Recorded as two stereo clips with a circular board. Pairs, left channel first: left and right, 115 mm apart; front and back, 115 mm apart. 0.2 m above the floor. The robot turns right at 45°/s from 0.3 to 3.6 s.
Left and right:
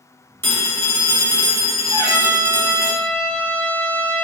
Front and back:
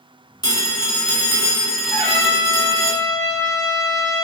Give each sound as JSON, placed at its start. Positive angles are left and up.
{"t": 0.4, "sound": "a phone ringing", "azimuth_deg": 30, "distance_m": 0.8}
{"t": 1.9, "sound": "a trumpet", "azimuth_deg": -60, "distance_m": 1.0}